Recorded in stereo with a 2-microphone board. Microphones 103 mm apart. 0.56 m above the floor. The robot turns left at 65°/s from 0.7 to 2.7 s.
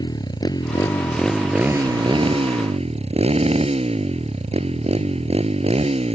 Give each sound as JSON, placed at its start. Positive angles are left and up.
{"t": 0.0, "sound": "a motorcycle", "azimuth_deg": 40}